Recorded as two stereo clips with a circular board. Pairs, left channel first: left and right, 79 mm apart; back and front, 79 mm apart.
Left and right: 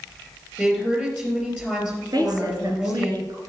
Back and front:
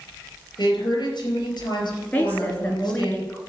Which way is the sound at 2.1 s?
110° right.